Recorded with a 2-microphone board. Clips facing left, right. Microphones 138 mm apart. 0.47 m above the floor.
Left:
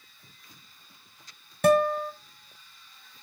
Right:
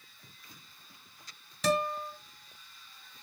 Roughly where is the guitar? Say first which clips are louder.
Left 9 dB; left.